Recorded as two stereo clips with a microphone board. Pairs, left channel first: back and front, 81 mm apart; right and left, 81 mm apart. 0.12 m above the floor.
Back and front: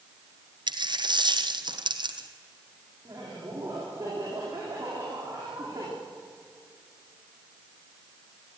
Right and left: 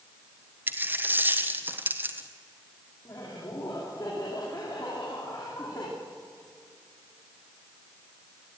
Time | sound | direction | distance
0.7 | a dropped coin | 25° left | 1.5 m
3.0 | laughter | 55° right | 8.5 m